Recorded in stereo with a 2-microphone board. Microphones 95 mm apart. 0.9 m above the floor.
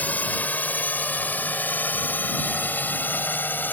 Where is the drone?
15° left (ahead or behind); by 3.7 s 20° left (ahead or behind).